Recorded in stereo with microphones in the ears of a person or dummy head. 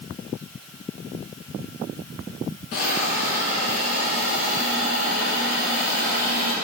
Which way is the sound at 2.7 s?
55° left (ahead or behind).